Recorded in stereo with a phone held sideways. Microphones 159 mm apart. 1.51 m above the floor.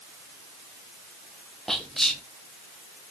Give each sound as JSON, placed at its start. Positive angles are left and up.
{"t": 1.7, "sound": "whispering", "side_deg": 0, "distance_m": 0.7}